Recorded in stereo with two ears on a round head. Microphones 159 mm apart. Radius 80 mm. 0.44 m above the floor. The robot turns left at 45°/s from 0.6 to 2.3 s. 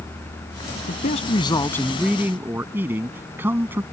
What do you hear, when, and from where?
0.9 s a man speaking: 50° left; by 3.8 s 10° right